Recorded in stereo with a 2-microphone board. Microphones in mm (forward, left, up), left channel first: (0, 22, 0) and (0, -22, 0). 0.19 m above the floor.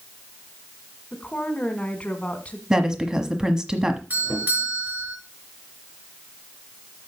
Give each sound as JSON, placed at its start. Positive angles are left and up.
{"t": 1.1, "sound": "a woman speaking", "side_deg": 25, "distance_m": 1.7}
{"t": 2.7, "sound": "a woman speaking", "side_deg": -15, "distance_m": 1.1}
{"t": 4.1, "sound": "a doorbell", "side_deg": -45, "distance_m": 3.5}